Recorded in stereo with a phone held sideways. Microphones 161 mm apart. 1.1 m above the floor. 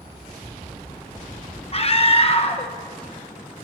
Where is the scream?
40° left (ahead or behind), 1.0 m.